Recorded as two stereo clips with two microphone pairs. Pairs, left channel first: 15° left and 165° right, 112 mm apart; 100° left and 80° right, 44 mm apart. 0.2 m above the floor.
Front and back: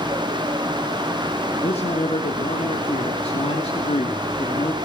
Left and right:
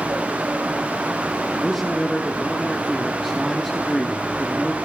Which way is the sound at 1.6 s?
15° left.